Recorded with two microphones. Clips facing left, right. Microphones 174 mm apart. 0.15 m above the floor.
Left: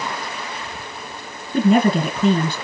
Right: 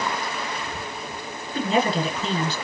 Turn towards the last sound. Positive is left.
turn(degrees=55)  # may be behind; listen again after turning